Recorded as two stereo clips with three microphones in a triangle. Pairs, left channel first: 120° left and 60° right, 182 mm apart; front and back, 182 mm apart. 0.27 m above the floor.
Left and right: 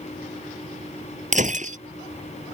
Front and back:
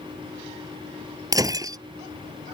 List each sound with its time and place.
1.3 s breaking glass: 110° right